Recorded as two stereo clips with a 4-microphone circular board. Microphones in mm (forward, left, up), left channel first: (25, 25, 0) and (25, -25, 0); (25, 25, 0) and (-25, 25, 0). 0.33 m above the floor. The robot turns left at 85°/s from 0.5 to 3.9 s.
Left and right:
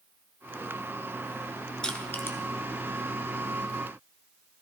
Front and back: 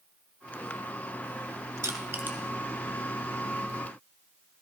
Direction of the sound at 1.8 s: 165° left.